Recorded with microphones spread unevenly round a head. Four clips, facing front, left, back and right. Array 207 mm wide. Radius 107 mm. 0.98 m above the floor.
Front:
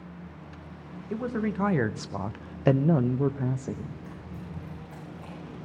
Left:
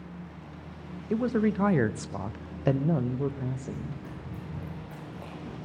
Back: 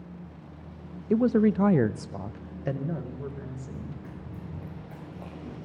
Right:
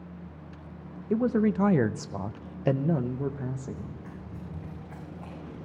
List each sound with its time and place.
1.1 s a man speaking: 165° right, 0.7 m; by 3.9 s straight ahead, 1.1 m
3.7 s running footsteps: 140° left, 7 m; by 5.5 s 150° left, 6 m